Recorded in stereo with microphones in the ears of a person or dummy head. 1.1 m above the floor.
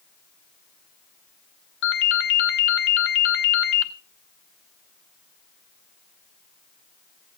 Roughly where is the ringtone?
Left.